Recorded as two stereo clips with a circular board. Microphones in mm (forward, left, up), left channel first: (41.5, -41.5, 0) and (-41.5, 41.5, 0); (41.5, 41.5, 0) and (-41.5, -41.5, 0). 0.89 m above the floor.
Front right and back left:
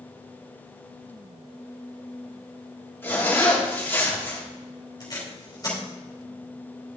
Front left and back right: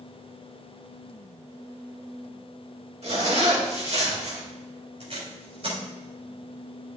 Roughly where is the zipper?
Behind right.